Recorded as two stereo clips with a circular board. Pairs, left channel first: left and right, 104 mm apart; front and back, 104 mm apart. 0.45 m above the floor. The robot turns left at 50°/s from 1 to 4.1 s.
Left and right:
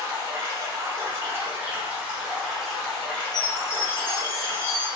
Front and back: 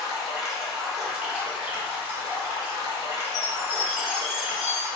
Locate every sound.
0.0 s running water: 95° right, 0.8 m; by 5.0 s 110° left, 0.8 m
3.3 s a chime: 50° left, 0.6 m; by 4.9 s 15° left, 0.6 m